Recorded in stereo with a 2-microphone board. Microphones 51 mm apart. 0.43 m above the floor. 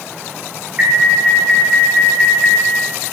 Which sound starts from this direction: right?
An alarm, at 0.8 s.